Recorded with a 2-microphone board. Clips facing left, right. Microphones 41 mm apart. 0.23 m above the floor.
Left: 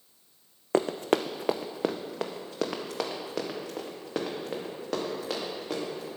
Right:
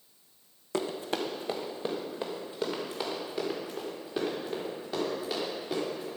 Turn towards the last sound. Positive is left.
turn(degrees=80)